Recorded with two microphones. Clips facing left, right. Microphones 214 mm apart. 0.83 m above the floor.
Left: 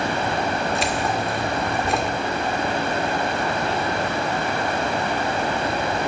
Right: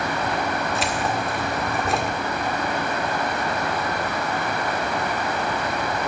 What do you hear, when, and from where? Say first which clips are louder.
0.8 s keys jangling: left 1 dB; centre (ahead or behind), 1.8 m